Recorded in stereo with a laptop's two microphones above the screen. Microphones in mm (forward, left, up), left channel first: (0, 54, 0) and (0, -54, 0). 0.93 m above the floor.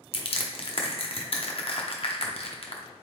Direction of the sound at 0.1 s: 60° left (ahead or behind).